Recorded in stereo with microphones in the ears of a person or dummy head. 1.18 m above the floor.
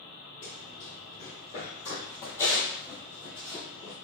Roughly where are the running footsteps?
Centre.